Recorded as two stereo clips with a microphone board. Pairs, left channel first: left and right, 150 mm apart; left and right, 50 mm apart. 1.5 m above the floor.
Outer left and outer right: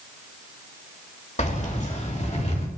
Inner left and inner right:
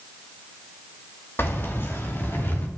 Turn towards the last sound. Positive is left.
turn(degrees=50)  # may be behind; listen again after turning